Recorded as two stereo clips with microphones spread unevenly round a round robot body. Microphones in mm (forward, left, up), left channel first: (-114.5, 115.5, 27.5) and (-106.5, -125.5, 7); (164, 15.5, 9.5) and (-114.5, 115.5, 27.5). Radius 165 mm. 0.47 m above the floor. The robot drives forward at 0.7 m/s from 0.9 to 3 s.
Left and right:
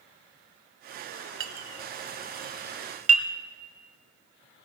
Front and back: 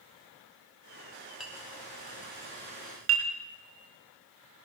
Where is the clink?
110° right, 1.1 m; by 3.3 s 145° right, 1.8 m.